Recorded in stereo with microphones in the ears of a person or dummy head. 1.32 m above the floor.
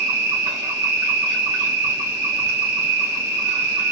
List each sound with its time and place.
0.0 s an insect: 45° right (ahead or behind), 1.2 m